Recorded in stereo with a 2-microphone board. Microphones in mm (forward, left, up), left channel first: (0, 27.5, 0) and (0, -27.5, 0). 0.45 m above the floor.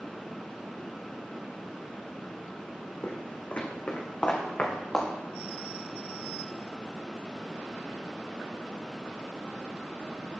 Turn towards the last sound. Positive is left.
turn(degrees=20)  # may be behind; listen again after turning